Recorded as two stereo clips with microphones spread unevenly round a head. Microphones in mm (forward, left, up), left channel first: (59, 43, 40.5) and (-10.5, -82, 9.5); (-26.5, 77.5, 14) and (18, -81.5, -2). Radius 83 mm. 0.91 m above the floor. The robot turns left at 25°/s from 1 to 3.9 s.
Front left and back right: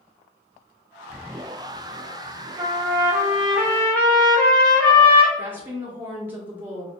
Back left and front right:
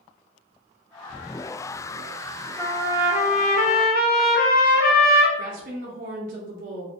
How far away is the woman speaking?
About 0.7 m.